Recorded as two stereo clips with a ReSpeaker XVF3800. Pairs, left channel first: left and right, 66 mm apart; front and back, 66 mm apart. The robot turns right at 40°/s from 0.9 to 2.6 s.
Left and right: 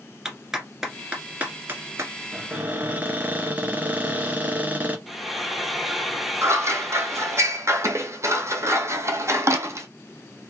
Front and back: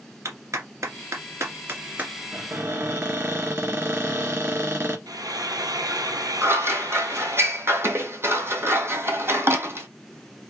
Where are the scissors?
130° right, 1.3 m.